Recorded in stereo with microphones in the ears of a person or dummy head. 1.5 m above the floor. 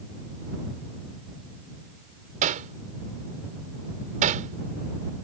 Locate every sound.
2.4 s hammering: 40° right (ahead or behind)